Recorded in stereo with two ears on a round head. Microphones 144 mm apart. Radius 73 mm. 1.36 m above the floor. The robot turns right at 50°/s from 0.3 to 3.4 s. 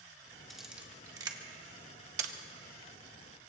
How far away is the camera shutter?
About 1.1 m.